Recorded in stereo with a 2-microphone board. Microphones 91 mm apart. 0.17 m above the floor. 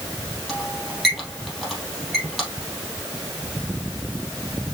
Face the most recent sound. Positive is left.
turn(degrees=5)  # may be behind; listen again after turning